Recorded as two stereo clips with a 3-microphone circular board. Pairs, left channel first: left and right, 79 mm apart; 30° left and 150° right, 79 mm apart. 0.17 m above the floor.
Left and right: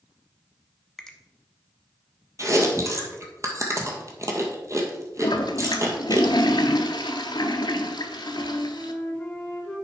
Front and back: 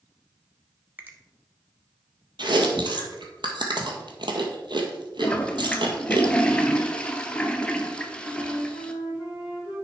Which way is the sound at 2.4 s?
140° right.